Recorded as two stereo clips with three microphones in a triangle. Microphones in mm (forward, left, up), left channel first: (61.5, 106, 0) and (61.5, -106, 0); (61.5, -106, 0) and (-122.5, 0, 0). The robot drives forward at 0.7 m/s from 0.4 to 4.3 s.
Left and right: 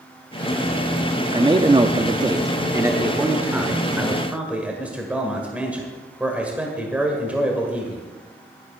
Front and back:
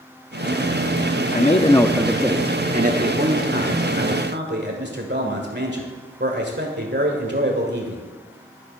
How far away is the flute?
I don't hear a flute.